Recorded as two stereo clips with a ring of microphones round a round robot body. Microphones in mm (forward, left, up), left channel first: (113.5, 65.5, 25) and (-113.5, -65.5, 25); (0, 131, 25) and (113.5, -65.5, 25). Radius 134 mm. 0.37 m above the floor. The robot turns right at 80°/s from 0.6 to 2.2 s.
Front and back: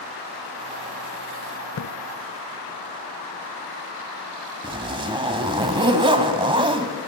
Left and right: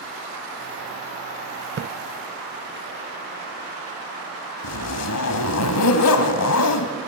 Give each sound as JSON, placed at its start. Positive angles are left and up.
{"t": 1.8, "sound": "a splash", "azimuth_deg": -15, "distance_m": 0.5}
{"t": 4.6, "sound": "a zipper", "azimuth_deg": 140, "distance_m": 1.3}